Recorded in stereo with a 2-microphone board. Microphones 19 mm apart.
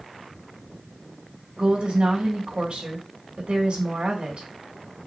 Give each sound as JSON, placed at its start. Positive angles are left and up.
{"t": 1.6, "sound": "a woman speaking", "side_deg": -65, "distance_m": 2.5}